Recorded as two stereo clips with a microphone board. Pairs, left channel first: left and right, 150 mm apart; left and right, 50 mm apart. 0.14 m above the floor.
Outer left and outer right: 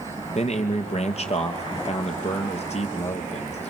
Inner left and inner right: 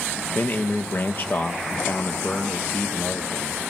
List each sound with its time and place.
0.3 s a man speaking: 45° left (ahead or behind), 3 m